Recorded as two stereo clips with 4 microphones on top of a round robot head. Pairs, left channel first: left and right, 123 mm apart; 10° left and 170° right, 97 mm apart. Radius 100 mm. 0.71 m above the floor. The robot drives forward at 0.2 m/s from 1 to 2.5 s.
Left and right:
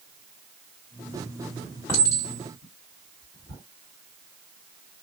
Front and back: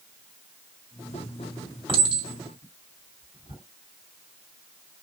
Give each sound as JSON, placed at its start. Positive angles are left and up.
{"t": 1.9, "sound": "a clink", "azimuth_deg": 160, "distance_m": 2.0}